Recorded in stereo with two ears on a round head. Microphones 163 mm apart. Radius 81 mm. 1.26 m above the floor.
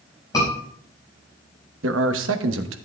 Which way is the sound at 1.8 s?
80° right.